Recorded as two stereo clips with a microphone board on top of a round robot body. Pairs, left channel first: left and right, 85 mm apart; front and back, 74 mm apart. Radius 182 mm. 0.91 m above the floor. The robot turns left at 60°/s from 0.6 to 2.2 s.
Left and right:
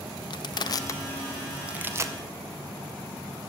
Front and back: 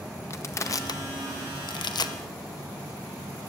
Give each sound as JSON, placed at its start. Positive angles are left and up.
{"t": 0.3, "sound": "crushing", "azimuth_deg": 55, "distance_m": 0.6}